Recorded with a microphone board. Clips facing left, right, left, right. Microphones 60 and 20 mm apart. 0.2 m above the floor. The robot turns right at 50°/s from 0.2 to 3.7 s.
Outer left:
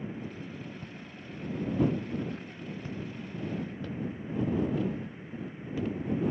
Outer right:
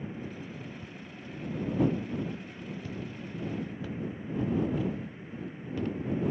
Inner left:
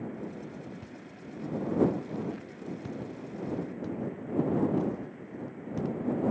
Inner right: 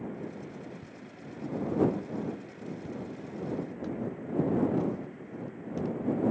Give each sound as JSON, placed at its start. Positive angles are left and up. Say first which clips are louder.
{"t": 0.8, "sound": "footsteps", "louder": "even, inner left 1 dB", "side_deg": 50}